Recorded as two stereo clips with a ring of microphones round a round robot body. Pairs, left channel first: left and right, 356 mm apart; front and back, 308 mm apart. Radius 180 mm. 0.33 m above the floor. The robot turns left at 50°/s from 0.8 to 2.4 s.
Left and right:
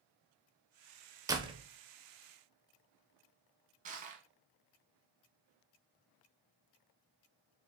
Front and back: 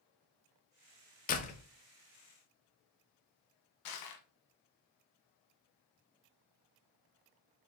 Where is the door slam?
20° right, 0.6 m; by 1.6 s 40° right, 0.6 m.